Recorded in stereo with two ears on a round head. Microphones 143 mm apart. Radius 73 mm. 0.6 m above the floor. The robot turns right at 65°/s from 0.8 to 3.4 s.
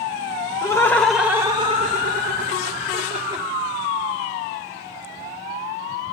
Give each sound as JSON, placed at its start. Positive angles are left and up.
{"t": 0.6, "sound": "laughter", "azimuth_deg": 160, "distance_m": 2.0}